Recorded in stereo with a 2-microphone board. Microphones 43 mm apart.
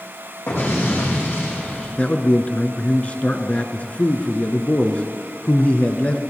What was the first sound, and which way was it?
An explosion, 65° left (ahead or behind).